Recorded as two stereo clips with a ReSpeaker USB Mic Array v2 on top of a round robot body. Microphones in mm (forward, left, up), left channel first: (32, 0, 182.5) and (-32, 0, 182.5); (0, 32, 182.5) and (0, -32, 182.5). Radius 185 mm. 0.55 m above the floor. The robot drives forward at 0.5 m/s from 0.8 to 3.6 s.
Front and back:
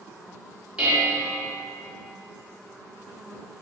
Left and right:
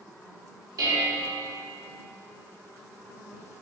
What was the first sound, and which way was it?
Dishes clattering, 105° right.